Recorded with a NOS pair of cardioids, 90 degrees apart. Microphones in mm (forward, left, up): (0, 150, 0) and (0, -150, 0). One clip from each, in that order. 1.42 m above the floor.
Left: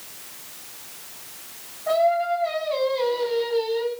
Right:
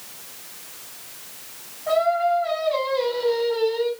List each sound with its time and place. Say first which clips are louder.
1.9 s singing: right 1 dB; straight ahead, 9 m